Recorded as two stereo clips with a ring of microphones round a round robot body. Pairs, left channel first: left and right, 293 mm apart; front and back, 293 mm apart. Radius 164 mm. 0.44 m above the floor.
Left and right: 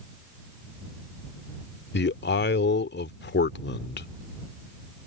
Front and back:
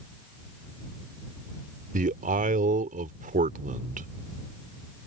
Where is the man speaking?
125° left.